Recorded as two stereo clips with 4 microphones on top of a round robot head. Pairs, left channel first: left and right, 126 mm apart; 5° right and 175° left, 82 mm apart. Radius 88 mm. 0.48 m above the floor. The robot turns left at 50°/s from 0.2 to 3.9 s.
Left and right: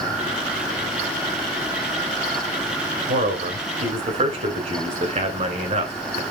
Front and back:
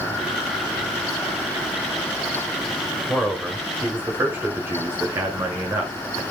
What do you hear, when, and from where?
3.1 s a man speaking: 75° right, 2.5 m; by 6.2 s 115° right, 2.5 m